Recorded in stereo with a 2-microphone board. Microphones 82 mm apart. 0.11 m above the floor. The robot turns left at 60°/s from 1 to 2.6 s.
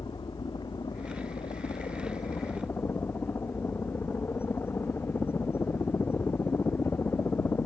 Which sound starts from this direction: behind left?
A helicopter, at 0.0 s.